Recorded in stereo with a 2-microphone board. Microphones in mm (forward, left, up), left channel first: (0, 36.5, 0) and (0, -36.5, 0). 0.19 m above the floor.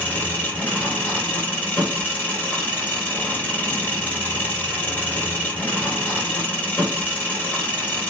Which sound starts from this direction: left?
An engine running, at 0.0 s.